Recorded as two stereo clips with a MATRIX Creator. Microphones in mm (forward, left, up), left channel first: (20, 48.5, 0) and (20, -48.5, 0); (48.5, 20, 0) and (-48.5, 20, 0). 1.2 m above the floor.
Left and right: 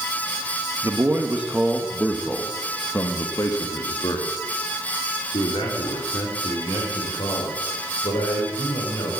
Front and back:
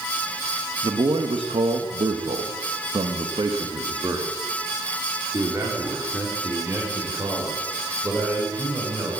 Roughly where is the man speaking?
Behind right.